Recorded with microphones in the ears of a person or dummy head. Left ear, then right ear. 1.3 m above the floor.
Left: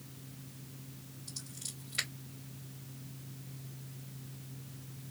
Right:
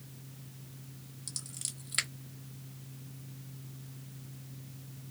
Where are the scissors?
60° right (ahead or behind), 1.1 m.